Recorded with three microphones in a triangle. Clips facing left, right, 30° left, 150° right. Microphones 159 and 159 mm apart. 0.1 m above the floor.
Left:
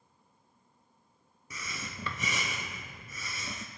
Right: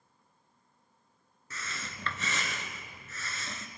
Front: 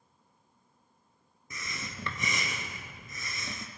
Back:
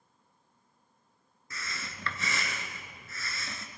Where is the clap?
I don't hear a clap.